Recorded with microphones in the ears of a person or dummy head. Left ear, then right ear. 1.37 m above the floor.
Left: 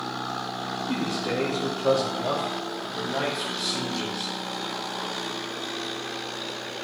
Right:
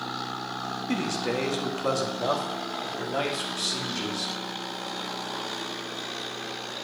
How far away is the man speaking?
About 1.5 m.